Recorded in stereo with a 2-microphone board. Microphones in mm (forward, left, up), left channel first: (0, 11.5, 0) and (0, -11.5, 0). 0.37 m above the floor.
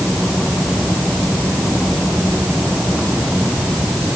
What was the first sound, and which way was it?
Only background noise.